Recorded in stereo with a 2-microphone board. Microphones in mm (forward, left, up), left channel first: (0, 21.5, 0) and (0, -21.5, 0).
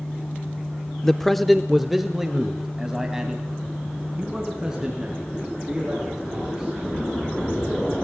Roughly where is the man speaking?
Centre.